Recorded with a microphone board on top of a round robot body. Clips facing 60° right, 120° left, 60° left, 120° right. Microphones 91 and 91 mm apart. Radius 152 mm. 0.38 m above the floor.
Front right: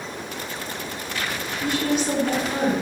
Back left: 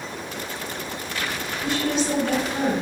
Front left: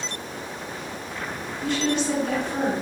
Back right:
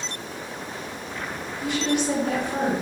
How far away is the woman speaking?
About 1.9 m.